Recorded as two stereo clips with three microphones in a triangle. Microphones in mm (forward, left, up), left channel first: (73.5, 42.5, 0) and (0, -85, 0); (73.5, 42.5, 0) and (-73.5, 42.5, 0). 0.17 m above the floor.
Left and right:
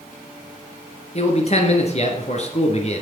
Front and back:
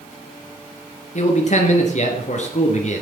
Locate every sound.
1.1 s a man speaking: 25° left, 3 m